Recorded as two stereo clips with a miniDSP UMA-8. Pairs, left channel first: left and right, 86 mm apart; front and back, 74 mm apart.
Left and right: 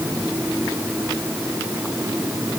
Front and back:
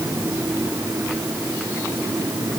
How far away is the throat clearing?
No throat clearing in this recording.